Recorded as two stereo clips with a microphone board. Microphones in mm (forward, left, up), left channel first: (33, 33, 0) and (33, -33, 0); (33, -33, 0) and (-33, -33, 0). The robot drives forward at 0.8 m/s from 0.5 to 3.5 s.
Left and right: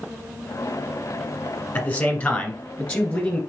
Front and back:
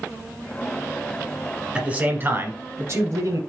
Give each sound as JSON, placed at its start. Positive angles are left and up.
{"t": 1.8, "sound": "a man speaking", "azimuth_deg": 130, "distance_m": 1.2}